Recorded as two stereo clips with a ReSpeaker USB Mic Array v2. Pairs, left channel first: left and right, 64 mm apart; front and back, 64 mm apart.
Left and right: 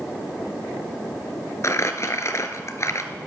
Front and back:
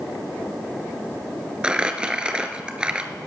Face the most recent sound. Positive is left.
turn(degrees=110)